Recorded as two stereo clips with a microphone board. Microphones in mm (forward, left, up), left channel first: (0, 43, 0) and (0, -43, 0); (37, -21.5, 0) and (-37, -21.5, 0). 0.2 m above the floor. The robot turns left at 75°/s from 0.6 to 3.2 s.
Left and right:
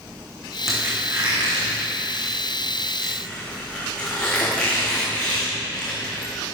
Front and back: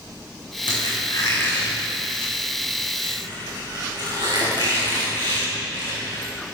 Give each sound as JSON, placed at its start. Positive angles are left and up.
{"t": 0.7, "sound": "a squeak", "azimuth_deg": -5, "distance_m": 6.0}